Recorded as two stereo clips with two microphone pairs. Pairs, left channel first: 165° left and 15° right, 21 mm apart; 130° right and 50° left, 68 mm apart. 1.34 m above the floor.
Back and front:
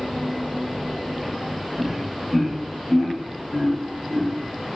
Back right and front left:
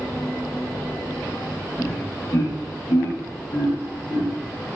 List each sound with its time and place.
1.8 s laughter: 65° right, 0.7 m; by 4.3 s 135° right, 1.4 m